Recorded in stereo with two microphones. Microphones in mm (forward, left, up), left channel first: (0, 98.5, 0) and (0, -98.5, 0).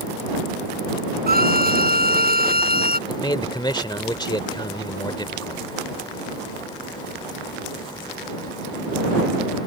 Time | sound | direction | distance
1.3 | a violin | 50° right (ahead or behind) | ?
3.1 | a man speaking | 20° left (ahead or behind) | ?